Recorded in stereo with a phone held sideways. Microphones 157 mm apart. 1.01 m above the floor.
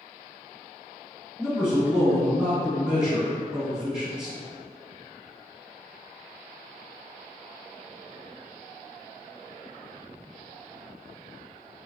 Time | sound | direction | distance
1.4 | a man speaking | 10° left (ahead or behind) | 1.5 m